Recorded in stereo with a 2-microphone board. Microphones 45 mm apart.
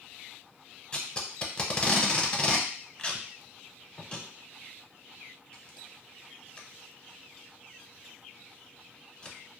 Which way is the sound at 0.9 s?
25° left (ahead or behind).